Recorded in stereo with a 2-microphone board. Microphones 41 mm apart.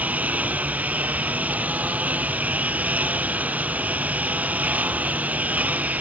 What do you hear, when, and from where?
0.0 s a lawn mower: 40° right (ahead or behind)